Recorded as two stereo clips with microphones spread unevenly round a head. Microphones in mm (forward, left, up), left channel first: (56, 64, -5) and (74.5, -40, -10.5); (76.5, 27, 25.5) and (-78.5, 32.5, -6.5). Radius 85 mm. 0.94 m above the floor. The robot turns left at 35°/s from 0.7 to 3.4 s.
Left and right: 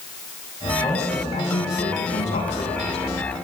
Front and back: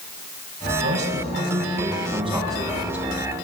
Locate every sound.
0.8 s a man speaking: 170° left, 6 m; by 3.0 s 90° left, 6 m